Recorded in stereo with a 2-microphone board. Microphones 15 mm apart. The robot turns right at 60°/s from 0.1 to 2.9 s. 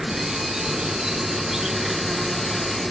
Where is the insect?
120° right; by 2.9 s 50° left.